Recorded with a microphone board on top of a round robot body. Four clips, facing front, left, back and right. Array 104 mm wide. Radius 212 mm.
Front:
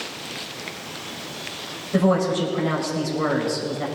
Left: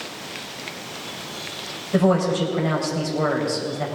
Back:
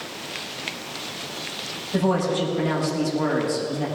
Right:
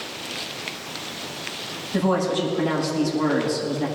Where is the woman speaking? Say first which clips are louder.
Left 3 dB, front 2 dB; 75° left, 4.5 m.